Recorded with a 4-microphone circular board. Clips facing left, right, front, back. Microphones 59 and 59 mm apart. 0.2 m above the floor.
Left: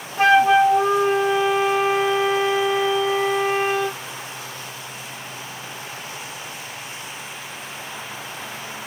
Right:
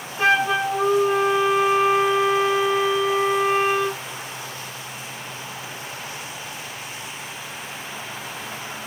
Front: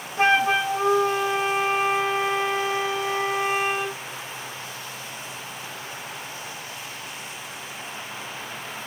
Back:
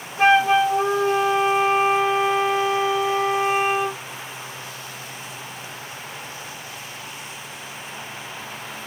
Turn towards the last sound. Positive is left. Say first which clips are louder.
# left 5 dB, back 4 dB
turn(degrees=55)